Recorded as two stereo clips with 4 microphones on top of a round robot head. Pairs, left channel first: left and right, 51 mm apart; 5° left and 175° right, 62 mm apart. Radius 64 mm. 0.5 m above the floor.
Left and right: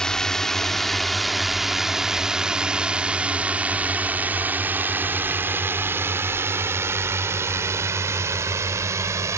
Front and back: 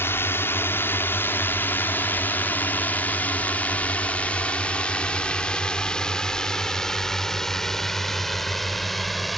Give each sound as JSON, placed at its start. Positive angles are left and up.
{"t": 0.0, "sound": "a drone", "azimuth_deg": 20}